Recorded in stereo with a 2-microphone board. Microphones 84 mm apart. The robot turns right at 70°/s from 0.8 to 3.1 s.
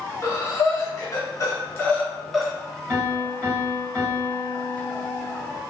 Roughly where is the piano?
Right.